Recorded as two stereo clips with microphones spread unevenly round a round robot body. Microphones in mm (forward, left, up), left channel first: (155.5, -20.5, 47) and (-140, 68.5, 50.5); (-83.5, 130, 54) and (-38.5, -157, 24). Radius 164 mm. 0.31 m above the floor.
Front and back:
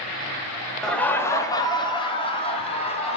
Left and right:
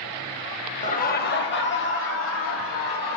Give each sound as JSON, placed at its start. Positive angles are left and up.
{"t": 0.8, "sound": "laughter", "azimuth_deg": 65, "distance_m": 1.0}